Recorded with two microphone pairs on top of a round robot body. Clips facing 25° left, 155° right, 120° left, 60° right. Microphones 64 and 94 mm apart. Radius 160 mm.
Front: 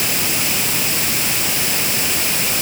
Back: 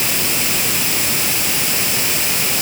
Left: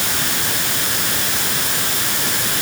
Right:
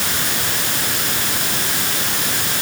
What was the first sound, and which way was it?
Only background noise.